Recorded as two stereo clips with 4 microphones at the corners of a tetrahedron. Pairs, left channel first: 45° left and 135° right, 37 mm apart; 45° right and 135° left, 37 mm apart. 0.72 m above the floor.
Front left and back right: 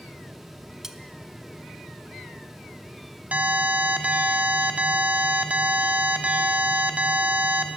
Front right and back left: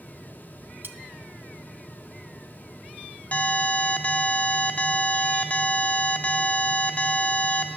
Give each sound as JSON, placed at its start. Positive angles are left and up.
{"t": 0.8, "sound": "cutlery clinking", "azimuth_deg": 145, "distance_m": 0.7}
{"t": 3.3, "sound": "an alarm", "azimuth_deg": -90, "distance_m": 1.0}